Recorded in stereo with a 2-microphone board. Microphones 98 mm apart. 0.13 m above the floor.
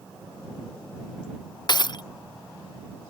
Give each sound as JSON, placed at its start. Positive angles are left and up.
{"t": 1.7, "sound": "breaking glass", "side_deg": 50}